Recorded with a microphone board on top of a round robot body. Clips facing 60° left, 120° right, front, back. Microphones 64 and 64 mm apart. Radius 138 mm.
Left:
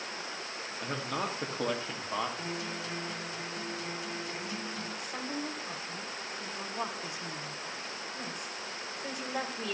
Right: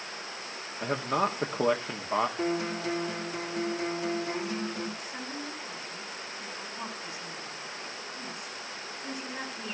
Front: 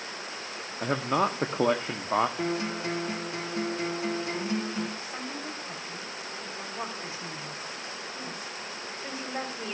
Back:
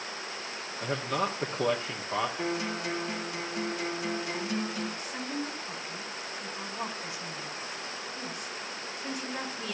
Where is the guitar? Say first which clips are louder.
Right 7 dB, front 2 dB; 60° right, 4 m.